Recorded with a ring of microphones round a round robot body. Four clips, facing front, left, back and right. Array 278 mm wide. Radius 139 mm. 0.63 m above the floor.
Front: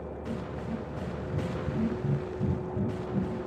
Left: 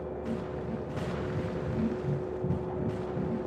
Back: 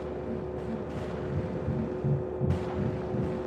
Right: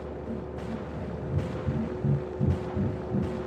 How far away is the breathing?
About 6 m.